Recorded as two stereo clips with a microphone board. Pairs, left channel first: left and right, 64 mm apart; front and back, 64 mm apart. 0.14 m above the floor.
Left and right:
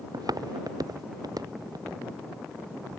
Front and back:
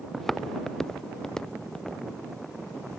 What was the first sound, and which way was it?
Footsteps, 85° right.